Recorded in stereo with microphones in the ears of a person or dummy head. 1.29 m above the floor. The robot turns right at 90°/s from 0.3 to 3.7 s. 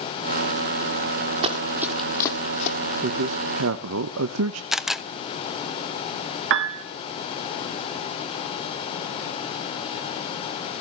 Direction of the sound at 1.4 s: 30° right (ahead or behind).